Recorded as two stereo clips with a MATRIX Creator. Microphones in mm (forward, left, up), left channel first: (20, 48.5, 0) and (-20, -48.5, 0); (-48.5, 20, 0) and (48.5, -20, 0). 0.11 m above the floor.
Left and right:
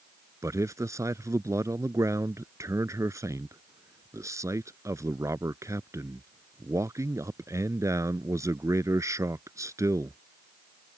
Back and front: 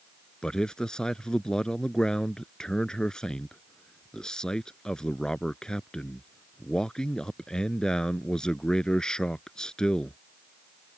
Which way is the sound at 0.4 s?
125° right.